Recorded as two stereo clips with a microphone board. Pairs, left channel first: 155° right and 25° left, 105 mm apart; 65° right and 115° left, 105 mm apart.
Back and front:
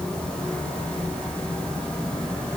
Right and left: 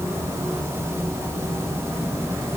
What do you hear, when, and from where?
Only background noise.